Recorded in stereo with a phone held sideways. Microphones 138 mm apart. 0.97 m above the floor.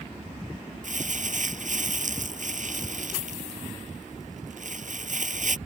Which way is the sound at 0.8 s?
65° right (ahead or behind).